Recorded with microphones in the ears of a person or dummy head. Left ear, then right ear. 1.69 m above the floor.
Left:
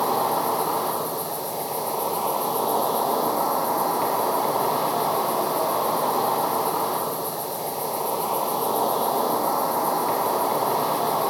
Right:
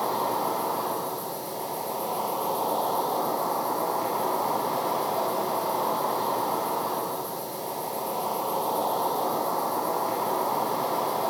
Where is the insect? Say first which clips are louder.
Left 4 dB; 15° left (ahead or behind), 3 m.